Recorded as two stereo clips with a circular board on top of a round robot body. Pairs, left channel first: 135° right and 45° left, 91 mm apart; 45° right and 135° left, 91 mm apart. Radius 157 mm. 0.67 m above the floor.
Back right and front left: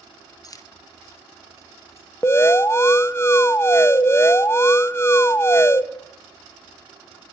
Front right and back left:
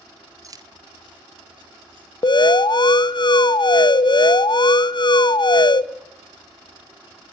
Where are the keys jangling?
Straight behind, 0.5 m; by 2.1 s 165° left, 1.9 m.